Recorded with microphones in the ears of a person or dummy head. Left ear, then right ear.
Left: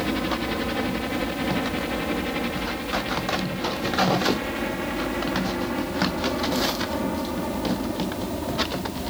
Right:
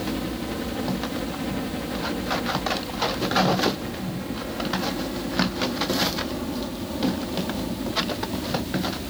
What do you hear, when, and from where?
0.0 s a helicopter: 60° left (ahead or behind); by 9.1 s 50° left (ahead or behind)